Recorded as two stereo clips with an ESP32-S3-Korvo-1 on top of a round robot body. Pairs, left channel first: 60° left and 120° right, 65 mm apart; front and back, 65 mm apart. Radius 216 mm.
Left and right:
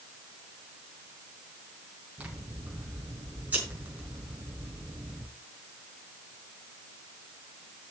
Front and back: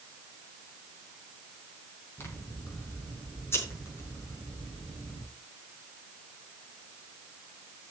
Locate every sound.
2.2 s scissors: 50° right, 4.5 m